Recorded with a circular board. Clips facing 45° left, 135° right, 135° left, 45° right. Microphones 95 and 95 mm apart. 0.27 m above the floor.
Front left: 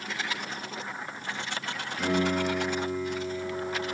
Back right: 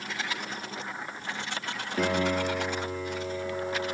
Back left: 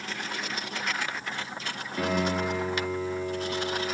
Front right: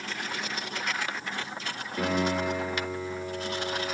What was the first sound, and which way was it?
A piano, 135° right.